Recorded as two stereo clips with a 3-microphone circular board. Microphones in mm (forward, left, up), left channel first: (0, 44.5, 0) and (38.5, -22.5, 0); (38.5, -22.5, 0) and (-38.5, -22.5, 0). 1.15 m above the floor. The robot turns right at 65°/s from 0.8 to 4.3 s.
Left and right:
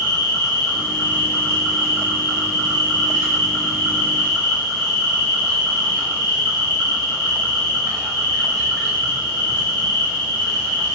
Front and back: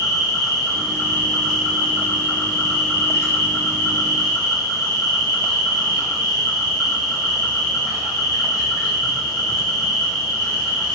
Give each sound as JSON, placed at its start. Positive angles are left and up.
{"t": 0.0, "sound": "an insect", "azimuth_deg": 150, "distance_m": 1.6}